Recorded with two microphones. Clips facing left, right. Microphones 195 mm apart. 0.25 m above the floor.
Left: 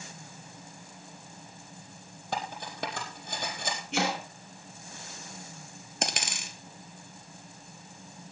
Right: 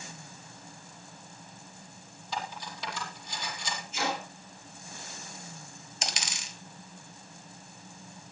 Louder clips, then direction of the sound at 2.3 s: Left 2 dB; 55° left (ahead or behind).